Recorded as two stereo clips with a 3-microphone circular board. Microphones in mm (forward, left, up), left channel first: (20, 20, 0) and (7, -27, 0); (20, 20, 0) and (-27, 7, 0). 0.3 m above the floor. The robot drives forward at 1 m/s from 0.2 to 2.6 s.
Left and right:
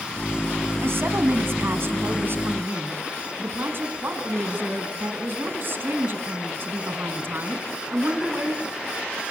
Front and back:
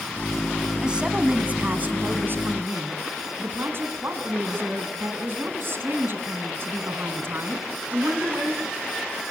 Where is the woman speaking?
95° right, 2 m; by 8.6 s 135° right, 3 m.